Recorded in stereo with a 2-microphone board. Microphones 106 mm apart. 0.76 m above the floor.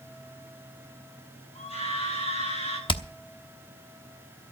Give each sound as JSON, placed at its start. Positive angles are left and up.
{"t": 1.6, "sound": "a scream", "side_deg": 85, "distance_m": 10.0}
{"t": 2.9, "sound": "hammering", "side_deg": 50, "distance_m": 0.9}